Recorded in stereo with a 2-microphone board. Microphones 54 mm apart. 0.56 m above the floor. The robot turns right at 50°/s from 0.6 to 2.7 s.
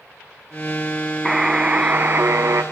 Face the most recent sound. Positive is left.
turn(degrees=-105)